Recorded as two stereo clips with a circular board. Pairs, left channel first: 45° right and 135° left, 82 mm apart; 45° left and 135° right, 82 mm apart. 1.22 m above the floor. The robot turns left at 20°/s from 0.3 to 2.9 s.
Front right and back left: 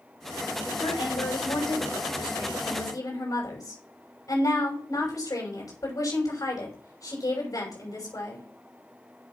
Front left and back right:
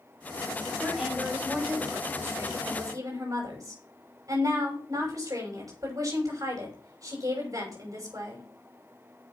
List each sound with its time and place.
0.8 s a woman speaking: 50° right, 6 m; by 8.4 s 90° right, 6 m